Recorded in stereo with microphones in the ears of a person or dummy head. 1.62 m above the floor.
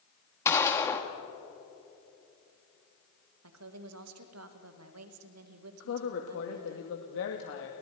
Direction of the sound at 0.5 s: 15° left (ahead or behind).